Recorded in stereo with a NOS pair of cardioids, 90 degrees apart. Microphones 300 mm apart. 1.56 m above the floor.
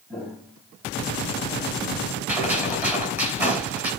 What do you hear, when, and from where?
0.1 s footsteps: straight ahead, 5.5 m
2.3 s a gunshot: 5° right, 8.5 m